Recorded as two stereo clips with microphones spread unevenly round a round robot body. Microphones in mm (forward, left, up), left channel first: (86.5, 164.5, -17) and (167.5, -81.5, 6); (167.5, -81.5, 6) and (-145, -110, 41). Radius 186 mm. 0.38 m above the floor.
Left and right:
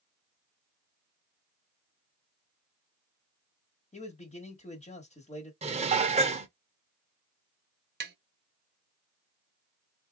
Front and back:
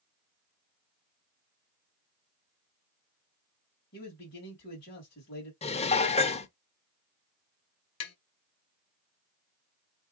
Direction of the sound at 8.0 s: 20° right.